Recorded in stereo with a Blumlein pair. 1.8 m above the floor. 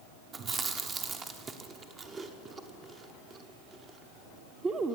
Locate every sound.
0.3 s chewing: 25° right, 0.9 m